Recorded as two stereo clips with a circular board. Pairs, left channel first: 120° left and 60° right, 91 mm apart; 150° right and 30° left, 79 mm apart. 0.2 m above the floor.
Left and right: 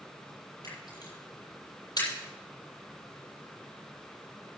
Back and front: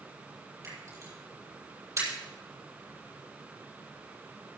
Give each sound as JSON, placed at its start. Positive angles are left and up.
{"t": 0.6, "sound": "a camera shutter", "azimuth_deg": 80, "distance_m": 7.0}